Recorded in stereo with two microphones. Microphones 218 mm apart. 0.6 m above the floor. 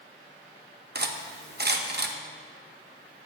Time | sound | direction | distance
0.9 | cutlery clinking | 50° right (ahead or behind) | 0.6 m